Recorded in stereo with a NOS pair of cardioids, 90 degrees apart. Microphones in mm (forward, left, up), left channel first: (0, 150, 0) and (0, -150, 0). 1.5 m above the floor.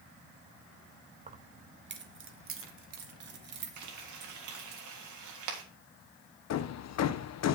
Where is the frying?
70° right, 3 m.